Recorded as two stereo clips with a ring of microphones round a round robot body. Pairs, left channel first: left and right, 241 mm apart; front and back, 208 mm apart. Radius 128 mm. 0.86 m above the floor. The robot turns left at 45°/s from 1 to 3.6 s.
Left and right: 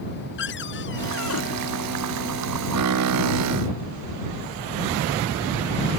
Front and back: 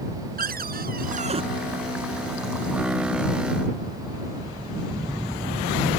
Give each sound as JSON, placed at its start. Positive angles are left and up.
{"t": 0.4, "sound": "a cupboard door", "azimuth_deg": 135}